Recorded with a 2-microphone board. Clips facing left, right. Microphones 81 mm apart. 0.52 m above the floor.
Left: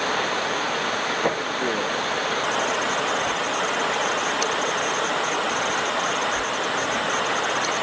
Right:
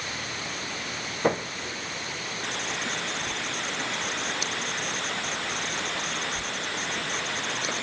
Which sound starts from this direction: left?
Running water, at 0.0 s.